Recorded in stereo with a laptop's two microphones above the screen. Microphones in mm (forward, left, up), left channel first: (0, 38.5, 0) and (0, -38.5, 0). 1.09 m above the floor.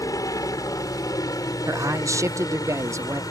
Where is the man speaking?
45° right (ahead or behind).